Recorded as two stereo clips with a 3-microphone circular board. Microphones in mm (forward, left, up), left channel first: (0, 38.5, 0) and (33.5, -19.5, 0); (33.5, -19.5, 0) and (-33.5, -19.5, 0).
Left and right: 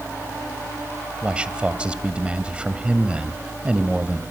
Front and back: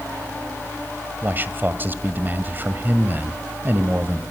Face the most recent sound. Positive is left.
turn(degrees=-130)